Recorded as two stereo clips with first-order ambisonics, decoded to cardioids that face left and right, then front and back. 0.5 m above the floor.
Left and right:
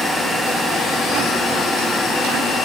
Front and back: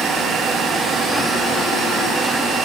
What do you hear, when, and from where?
Only background noise.